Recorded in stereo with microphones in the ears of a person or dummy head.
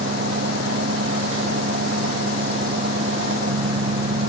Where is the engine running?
65° right (ahead or behind).